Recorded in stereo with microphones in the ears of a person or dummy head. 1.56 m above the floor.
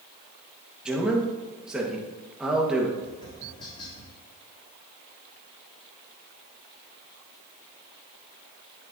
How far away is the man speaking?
About 1.9 m.